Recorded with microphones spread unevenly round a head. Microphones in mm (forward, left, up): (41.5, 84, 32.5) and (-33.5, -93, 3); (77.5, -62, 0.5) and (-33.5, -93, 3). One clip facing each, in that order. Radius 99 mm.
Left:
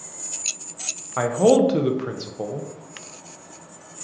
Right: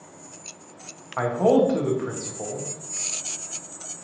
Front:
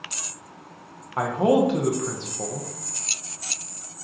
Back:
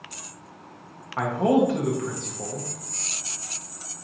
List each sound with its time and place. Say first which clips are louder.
1.2 s a man speaking: left 3 dB, front 1 dB; 70° left, 0.6 m